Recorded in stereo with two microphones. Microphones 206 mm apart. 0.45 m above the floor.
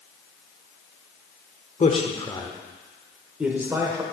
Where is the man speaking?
35° left (ahead or behind), 1.1 m; by 4.0 s 15° right (ahead or behind), 1.3 m.